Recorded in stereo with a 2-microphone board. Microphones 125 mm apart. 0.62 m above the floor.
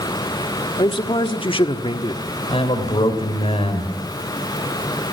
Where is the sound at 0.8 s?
45° left (ahead or behind), 1.2 m.